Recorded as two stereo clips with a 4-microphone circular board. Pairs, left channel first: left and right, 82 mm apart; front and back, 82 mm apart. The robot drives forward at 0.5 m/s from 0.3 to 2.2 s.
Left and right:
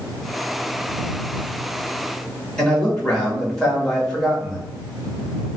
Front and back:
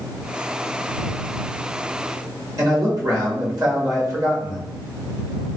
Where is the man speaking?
165° left, 1.3 m.